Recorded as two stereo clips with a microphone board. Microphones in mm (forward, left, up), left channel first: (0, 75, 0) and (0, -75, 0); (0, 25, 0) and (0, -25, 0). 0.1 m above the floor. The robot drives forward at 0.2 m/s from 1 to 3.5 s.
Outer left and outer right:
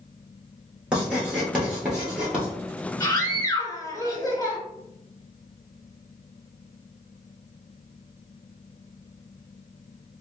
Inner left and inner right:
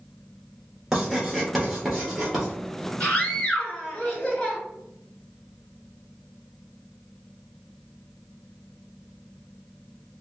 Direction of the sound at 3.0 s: 25° left (ahead or behind).